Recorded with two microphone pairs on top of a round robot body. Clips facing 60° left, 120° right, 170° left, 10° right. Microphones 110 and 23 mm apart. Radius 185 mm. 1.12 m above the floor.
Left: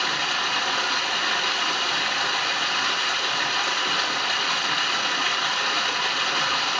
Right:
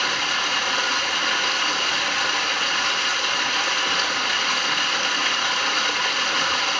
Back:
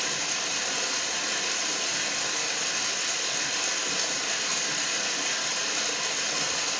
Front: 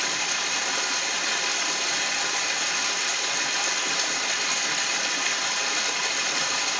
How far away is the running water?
About 1.0 m.